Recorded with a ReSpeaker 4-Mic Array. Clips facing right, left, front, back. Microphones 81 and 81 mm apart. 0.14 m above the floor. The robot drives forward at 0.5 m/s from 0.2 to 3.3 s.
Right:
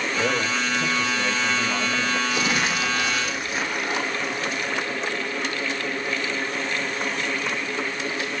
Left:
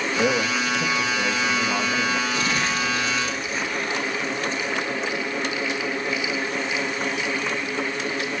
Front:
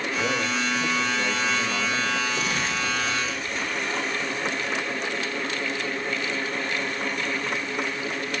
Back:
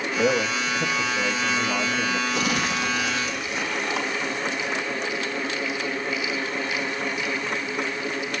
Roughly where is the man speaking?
Behind left.